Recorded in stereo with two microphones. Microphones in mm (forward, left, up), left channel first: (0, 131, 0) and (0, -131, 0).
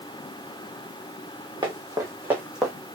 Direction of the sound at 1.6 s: 20° right (ahead or behind).